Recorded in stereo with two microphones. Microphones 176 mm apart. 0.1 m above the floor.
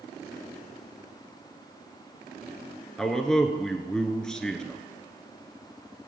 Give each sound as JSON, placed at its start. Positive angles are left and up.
{"t": 3.0, "sound": "a man speaking", "side_deg": 5, "distance_m": 1.1}